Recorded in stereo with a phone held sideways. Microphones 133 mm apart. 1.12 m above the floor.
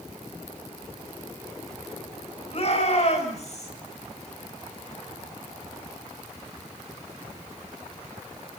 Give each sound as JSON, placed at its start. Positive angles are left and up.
{"t": 2.5, "sound": "a shout", "side_deg": 50, "distance_m": 6.0}